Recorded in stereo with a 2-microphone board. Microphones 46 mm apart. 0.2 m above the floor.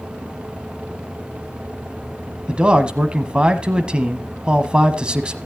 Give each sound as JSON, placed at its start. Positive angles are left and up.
{"t": 2.5, "sound": "a man speaking", "side_deg": -20, "distance_m": 1.2}